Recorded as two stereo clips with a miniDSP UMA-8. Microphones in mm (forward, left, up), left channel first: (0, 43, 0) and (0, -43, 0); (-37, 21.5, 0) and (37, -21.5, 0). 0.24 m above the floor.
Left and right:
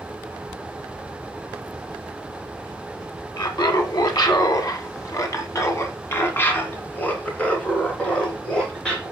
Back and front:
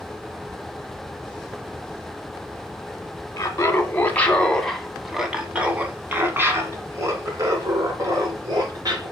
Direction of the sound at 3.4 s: 105° left.